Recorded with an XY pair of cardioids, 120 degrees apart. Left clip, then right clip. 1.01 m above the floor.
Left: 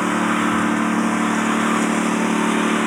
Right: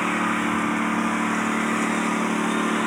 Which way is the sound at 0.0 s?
30° left.